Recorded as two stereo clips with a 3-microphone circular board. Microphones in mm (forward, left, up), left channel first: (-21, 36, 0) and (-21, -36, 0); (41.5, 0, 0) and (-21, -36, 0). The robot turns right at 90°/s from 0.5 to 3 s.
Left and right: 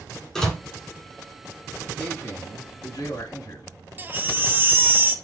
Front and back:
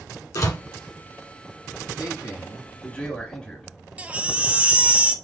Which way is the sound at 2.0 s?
15° left.